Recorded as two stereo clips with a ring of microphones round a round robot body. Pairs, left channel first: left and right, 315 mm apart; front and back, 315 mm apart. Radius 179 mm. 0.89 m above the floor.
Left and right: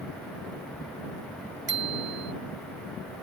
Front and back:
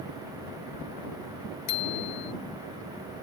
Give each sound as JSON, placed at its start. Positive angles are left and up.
{"t": 1.7, "sound": "a bicycle bell", "azimuth_deg": -35}